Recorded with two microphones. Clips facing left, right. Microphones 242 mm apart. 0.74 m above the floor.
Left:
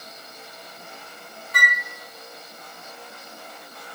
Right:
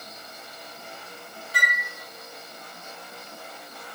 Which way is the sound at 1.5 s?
30° right (ahead or behind).